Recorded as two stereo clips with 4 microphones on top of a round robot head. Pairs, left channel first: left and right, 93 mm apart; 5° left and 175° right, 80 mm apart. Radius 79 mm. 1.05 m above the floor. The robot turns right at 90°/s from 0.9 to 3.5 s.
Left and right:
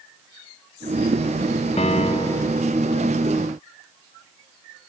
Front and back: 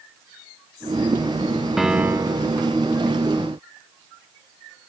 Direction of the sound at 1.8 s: 100° left.